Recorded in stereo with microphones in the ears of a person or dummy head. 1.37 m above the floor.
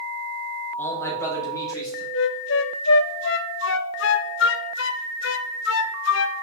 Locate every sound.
0.8 s a man speaking: 10° left (ahead or behind), 1.8 m; by 2.0 s 20° left (ahead or behind), 3.5 m
2.1 s a flute: 60° left (ahead or behind), 0.6 m